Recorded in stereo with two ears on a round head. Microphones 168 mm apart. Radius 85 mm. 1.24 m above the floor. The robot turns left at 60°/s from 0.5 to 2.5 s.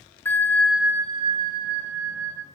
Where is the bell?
10° left, 0.7 m; by 2.5 s 105° right, 0.7 m.